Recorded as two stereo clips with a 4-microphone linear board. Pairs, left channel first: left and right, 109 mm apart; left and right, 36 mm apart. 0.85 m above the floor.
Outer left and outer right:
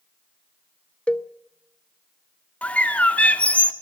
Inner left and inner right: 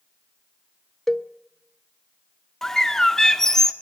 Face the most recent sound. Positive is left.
turn(degrees=15)  # may be behind; listen again after turning